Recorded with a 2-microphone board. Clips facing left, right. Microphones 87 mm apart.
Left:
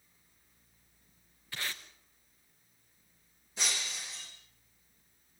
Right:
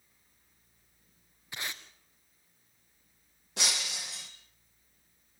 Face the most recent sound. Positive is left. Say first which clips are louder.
# right 2 dB
turn(degrees=-75)  # may be behind; listen again after turning